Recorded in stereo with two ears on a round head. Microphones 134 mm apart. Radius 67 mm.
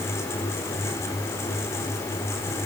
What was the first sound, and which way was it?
Only background noise.